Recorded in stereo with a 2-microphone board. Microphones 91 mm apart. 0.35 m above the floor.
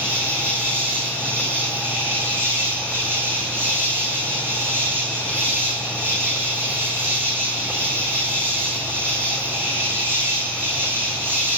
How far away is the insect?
About 9 m.